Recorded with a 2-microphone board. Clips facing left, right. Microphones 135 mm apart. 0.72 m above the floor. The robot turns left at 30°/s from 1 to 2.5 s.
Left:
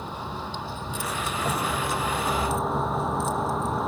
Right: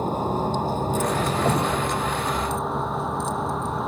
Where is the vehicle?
135° right; by 3.9 s straight behind.